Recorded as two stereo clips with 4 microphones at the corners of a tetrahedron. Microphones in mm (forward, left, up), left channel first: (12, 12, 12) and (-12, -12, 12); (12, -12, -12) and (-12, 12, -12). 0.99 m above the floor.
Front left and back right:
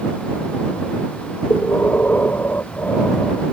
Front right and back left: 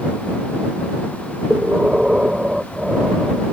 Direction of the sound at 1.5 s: 65° left.